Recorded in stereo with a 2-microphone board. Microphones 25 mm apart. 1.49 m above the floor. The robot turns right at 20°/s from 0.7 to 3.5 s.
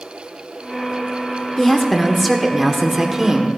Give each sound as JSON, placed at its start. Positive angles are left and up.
{"t": 1.6, "sound": "a woman speaking", "azimuth_deg": 165, "distance_m": 1.3}